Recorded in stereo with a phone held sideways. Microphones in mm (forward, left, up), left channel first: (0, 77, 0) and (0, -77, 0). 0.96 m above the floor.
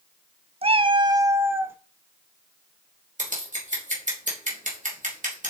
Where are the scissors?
55° right (ahead or behind), 3.5 m.